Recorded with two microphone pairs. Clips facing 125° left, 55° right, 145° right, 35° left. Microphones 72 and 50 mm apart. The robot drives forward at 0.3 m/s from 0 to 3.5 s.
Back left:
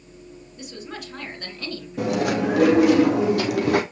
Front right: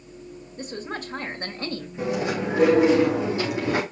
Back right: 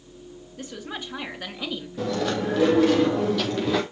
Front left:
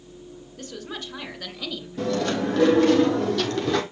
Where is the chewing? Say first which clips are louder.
Back left 4 dB, front left 2 dB; 125° left, 4 m; by 3.8 s 130° left, 4.5 m.